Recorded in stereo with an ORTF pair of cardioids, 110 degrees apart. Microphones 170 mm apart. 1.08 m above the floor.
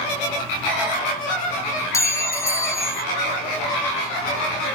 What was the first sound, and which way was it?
A clink, 15° left.